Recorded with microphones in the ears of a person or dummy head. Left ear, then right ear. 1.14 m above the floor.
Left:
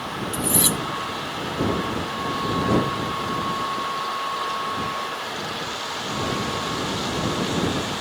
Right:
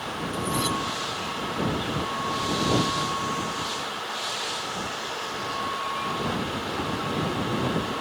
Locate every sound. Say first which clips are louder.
0.3 s cutlery clinking: left 3 dB; 30° left (ahead or behind)